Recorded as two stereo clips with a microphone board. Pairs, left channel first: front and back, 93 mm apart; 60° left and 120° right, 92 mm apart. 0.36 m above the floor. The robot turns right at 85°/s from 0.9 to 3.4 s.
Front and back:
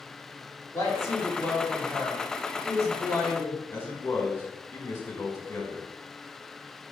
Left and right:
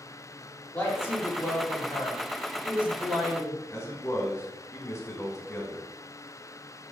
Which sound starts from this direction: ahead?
A woman speaking, at 0.7 s.